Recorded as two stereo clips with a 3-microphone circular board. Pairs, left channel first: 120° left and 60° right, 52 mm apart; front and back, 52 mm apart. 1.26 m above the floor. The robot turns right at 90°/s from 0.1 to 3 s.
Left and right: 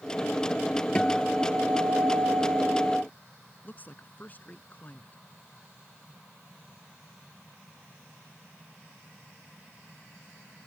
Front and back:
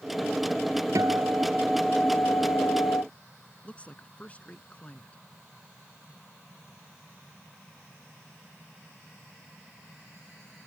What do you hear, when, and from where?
0.9 s a guitar: 165° right; by 3.0 s 20° left
3.6 s a woman speaking: 65° left